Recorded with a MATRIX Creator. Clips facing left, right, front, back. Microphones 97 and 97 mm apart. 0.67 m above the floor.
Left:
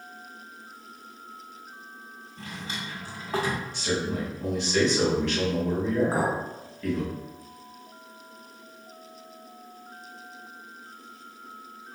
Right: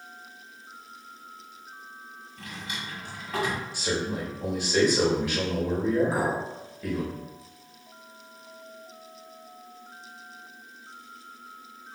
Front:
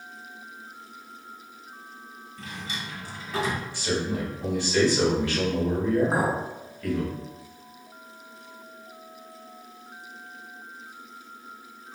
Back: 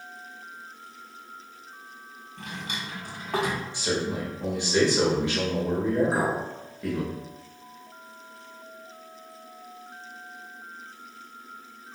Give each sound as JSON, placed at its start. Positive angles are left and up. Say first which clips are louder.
{"t": 2.4, "sound": "a drawer", "louder": "left 1 dB, back 1 dB", "azimuth_deg": 150, "distance_m": 0.9}
{"t": 3.7, "sound": "a man speaking", "louder": "left 1 dB, front 1 dB", "azimuth_deg": -160, "distance_m": 1.2}
{"t": 6.1, "sound": "a clink", "louder": "left 1 dB, front 1 dB", "azimuth_deg": 40, "distance_m": 1.3}